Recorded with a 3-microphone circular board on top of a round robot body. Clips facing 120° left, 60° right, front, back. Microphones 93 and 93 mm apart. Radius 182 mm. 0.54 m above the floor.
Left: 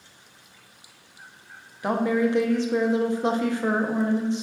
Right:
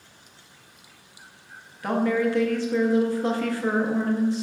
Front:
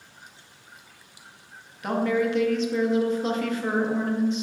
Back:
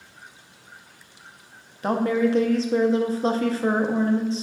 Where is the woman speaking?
175° left, 0.7 m.